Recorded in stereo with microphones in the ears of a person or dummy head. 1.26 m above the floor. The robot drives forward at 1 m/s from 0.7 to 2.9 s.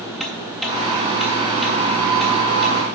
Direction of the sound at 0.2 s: Centre (ahead or behind).